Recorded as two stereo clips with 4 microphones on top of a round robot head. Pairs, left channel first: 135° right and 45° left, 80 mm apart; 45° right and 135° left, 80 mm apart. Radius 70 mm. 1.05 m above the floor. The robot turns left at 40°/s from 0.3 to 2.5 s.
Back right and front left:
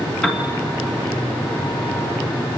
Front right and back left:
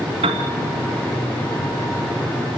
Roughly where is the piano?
Behind left.